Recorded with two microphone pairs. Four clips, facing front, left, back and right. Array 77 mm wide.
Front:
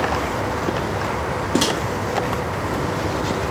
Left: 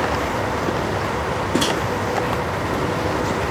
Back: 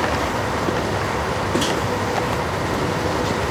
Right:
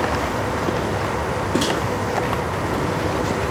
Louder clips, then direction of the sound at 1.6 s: Left 1 dB, front 2 dB; 5° left.